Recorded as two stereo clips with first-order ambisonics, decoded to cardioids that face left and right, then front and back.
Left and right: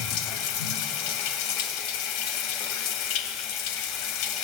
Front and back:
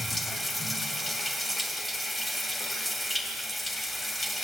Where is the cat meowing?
No cat meowing in this recording.